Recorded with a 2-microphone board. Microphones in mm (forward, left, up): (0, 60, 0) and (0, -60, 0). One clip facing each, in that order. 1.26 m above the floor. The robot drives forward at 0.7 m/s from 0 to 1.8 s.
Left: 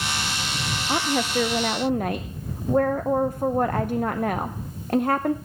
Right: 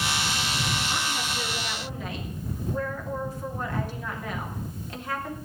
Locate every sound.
0.9 s a woman speaking: 65° left (ahead or behind), 0.6 m; by 5.3 s 55° left (ahead or behind), 0.7 m